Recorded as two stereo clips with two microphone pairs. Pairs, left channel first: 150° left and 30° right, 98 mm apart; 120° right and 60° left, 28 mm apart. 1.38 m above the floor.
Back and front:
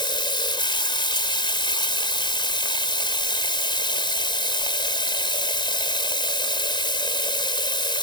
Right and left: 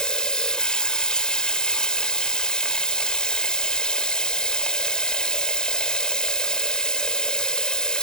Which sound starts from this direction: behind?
Running water, at 0.0 s.